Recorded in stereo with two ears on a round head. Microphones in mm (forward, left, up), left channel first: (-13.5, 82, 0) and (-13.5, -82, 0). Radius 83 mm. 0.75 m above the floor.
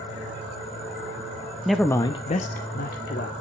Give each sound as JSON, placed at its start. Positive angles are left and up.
{"t": 1.6, "sound": "a man speaking", "side_deg": -5, "distance_m": 0.6}